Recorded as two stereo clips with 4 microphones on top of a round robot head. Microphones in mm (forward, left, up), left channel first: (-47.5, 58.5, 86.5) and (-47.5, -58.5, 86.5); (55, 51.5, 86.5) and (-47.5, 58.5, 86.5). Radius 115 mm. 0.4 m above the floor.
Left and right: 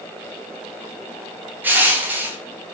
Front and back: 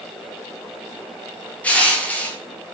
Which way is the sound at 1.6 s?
50° right.